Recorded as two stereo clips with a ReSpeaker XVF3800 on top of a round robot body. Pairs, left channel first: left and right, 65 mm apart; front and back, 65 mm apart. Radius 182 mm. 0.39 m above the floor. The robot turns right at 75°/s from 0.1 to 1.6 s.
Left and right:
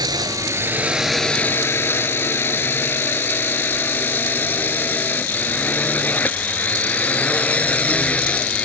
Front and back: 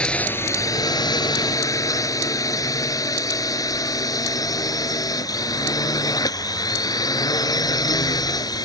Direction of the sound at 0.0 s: 75° right.